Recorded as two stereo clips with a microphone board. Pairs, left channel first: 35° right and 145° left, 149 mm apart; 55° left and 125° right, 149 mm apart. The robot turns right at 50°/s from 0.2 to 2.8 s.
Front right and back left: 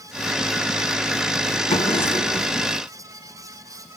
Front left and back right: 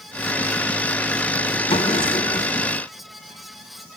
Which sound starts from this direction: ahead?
A drawer, at 1.7 s.